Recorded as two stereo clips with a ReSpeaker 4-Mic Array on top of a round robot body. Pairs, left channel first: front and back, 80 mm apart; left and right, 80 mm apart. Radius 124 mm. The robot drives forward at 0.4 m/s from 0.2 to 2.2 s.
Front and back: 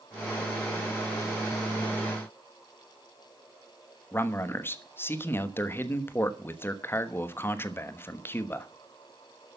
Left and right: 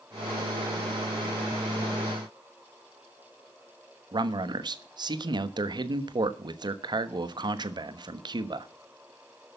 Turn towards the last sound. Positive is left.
turn(degrees=-60)